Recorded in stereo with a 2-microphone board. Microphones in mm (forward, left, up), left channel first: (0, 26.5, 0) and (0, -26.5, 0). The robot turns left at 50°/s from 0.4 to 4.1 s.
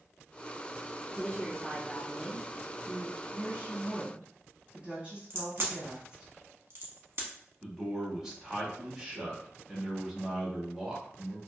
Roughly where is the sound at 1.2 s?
Ahead left.